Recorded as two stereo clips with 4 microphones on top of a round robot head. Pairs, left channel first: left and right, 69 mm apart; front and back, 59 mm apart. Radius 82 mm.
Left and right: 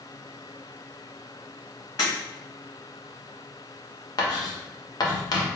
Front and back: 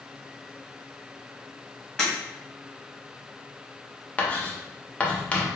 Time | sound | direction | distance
2.0 | breaking glass | 75° left | 1.8 m
4.2 | writing | 70° left | 1.2 m